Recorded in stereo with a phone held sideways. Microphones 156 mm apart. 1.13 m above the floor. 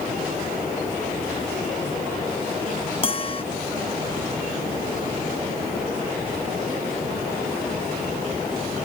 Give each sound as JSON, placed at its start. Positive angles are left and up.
{"t": 3.0, "sound": "a bell", "side_deg": 35}